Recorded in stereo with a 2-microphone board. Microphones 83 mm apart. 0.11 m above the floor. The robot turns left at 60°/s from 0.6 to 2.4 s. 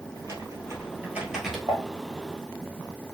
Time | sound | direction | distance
0.1 | typing on a keyboard | 125° right | 1.6 m
1.7 | dishes clattering | 50° right (ahead or behind) | 3 m